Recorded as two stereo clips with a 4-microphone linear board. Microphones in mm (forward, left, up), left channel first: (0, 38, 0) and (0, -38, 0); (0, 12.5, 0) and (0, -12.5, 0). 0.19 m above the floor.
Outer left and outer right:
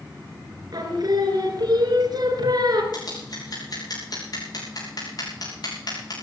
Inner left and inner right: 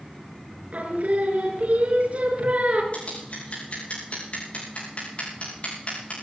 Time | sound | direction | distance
0.7 | singing | 55° right (ahead or behind) | 3 m
2.9 | scissors | 60° left (ahead or behind) | 8.5 m